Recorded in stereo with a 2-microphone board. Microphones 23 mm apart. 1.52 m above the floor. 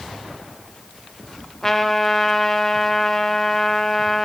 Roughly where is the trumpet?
Centre.